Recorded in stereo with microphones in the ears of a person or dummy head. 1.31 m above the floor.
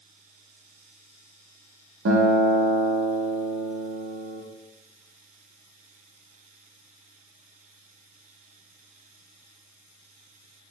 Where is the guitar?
70° right (ahead or behind), 0.9 m.